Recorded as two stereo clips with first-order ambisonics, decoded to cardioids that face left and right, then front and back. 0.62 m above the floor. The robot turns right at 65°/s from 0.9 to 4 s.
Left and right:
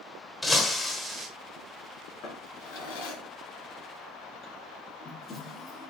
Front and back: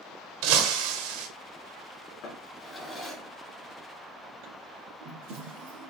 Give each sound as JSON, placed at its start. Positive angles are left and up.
{"t": 0.4, "sound": "breaking glass", "azimuth_deg": 175, "distance_m": 1.4}
{"t": 2.2, "sound": "a drawer", "azimuth_deg": 40, "distance_m": 2.5}